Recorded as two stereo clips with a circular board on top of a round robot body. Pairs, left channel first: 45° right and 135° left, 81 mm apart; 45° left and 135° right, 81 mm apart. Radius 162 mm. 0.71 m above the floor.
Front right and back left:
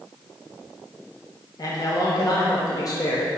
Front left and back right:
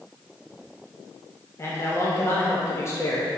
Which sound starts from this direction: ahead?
A man speaking, at 1.6 s.